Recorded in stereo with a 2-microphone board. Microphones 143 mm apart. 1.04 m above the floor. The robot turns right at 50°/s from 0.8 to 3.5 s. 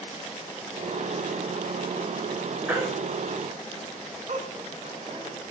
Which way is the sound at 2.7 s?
10° right (ahead or behind).